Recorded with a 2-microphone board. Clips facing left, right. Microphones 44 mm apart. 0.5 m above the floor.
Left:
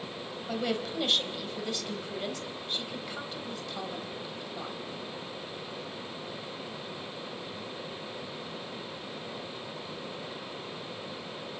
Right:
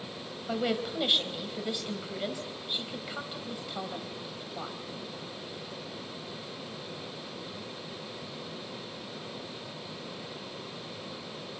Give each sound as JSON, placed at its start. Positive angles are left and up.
{"t": 0.5, "sound": "a woman speaking", "side_deg": -15, "distance_m": 3.0}